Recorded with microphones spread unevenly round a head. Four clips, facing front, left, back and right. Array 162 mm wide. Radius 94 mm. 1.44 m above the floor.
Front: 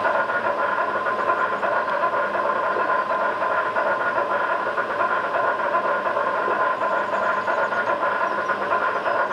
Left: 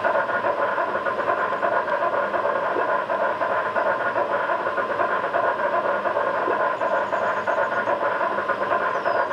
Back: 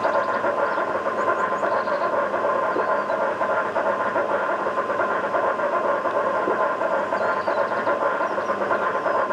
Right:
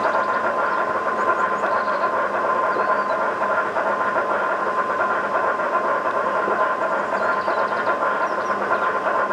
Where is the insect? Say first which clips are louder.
Right 2 dB, even; straight behind, 1.3 m.